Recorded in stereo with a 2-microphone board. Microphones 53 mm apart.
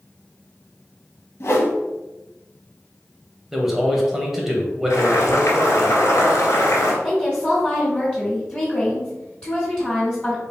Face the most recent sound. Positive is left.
turn(degrees=15)  # may be behind; listen again after turning